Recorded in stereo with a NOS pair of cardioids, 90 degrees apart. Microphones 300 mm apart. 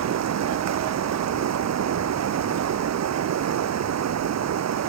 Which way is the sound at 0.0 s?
60° right.